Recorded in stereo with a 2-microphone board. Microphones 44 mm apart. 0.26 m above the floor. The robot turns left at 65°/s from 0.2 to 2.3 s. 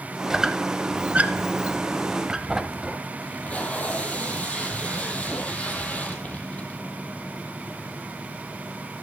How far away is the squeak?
About 0.7 m.